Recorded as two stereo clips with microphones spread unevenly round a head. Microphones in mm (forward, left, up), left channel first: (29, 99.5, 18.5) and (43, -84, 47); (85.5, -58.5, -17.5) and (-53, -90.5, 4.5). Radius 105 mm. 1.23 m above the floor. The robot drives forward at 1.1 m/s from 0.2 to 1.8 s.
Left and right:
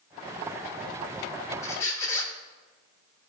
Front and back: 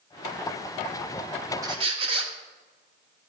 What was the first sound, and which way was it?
A squeak, 175° left.